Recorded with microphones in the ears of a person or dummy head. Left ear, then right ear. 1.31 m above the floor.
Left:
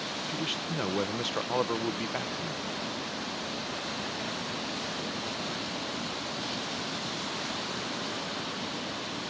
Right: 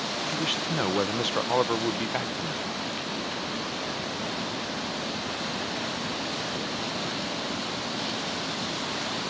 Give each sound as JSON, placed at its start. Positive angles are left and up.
{"t": 0.3, "sound": "a man speaking", "side_deg": -5}